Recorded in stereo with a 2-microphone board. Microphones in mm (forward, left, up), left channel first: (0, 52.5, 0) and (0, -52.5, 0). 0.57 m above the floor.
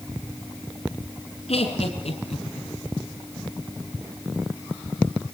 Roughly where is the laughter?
Left.